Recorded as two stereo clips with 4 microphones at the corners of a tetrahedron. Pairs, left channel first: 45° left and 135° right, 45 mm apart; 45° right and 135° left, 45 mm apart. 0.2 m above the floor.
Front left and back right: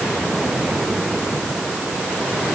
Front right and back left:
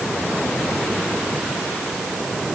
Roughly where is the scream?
I don't hear a scream.